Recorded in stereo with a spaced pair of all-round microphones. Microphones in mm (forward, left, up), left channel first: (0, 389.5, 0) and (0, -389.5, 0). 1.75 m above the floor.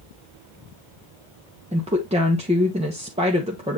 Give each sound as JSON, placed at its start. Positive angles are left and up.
{"t": 1.7, "sound": "a woman speaking", "side_deg": -10, "distance_m": 1.2}